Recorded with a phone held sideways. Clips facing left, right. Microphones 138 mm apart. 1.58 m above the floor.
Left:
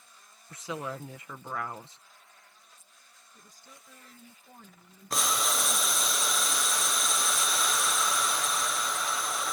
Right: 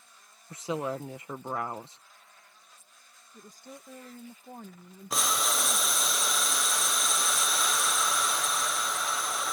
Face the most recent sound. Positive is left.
turn(degrees=-5)  # may be behind; listen again after turning